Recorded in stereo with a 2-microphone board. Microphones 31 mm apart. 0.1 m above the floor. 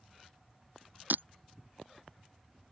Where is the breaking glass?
80° right.